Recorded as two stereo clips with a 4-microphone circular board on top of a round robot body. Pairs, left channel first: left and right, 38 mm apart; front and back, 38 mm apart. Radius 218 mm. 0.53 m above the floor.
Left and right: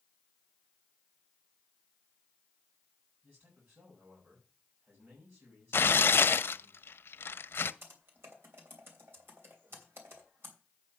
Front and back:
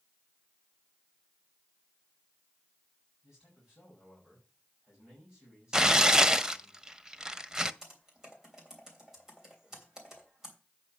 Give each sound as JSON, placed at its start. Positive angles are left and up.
{"t": 3.2, "sound": "a man speaking", "azimuth_deg": -105, "distance_m": 5.5}
{"t": 5.7, "sound": "tearing paper", "azimuth_deg": 105, "distance_m": 0.6}
{"t": 7.8, "sound": "typing on a keyboard", "azimuth_deg": -105, "distance_m": 3.0}